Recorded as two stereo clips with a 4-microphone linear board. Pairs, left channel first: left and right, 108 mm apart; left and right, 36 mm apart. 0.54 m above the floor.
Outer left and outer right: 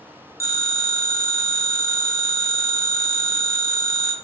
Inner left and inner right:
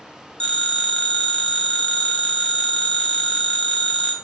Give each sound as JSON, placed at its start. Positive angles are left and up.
{"t": 0.4, "sound": "a phone ringing", "side_deg": 30, "distance_m": 0.6}